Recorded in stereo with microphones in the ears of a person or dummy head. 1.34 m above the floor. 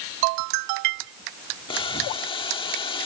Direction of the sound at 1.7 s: 25° left (ahead or behind).